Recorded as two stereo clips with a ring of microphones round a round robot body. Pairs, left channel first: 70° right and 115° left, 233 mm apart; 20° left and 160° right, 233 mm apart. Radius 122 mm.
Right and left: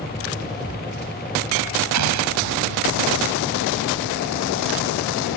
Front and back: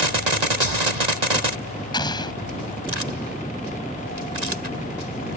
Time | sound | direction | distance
1.9 | an explosion | 95° left | ?